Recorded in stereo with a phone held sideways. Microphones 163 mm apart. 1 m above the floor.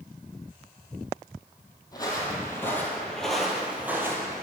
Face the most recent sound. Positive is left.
turn(degrees=-20)  # may be behind; listen again after turning